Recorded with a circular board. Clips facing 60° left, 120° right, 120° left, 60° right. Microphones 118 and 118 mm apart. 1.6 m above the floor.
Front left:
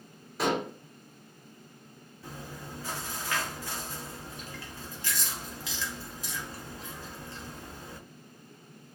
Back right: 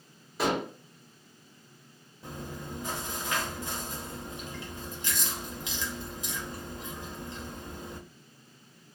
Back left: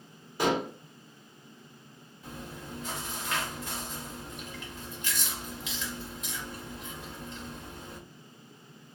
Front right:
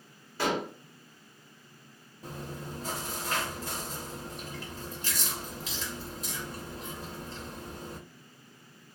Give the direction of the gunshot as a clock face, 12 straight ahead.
No gunshot in this recording.